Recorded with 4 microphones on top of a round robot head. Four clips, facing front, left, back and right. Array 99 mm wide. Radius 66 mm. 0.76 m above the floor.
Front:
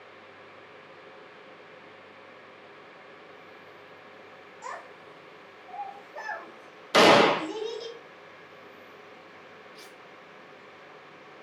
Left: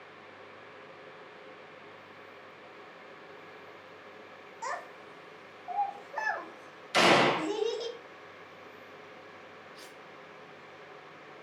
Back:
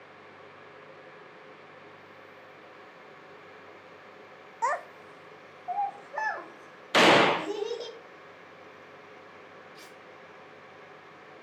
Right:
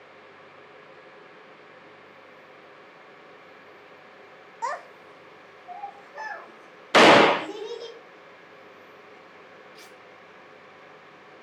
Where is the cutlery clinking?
105° right, 2 m.